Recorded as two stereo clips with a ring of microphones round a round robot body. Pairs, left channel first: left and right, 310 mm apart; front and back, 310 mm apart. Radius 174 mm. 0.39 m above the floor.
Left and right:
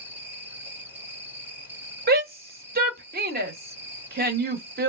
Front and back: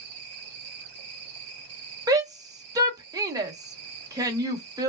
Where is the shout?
110° right, 1.1 m.